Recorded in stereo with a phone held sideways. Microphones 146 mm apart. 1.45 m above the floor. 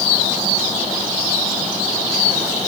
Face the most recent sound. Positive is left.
No sound to turn to.